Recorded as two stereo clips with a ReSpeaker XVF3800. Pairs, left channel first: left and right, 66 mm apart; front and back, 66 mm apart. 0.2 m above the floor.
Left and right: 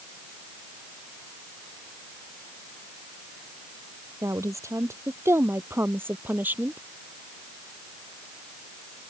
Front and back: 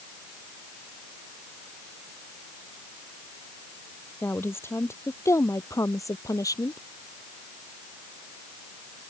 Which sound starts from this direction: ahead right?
A woman speaking, at 4.2 s.